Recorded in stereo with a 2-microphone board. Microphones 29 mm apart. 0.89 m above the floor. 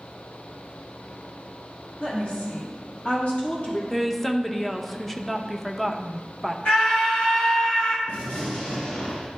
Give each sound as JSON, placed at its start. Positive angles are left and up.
{"t": 2.0, "sound": "a woman speaking", "side_deg": 65, "distance_m": 3.0}
{"t": 3.9, "sound": "a woman speaking", "side_deg": 5, "distance_m": 0.5}
{"t": 6.7, "sound": "a scream", "side_deg": 65, "distance_m": 2.5}
{"t": 8.1, "sound": "a gunshot", "side_deg": 75, "distance_m": 1.8}